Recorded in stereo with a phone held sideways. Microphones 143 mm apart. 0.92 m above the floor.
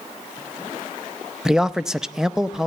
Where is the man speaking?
5° right (ahead or behind), 0.5 m.